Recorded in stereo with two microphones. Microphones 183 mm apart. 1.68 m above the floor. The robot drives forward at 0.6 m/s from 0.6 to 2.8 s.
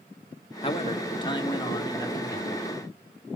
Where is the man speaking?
30° left (ahead or behind), 1.8 m; by 2.7 s 20° left (ahead or behind), 3 m.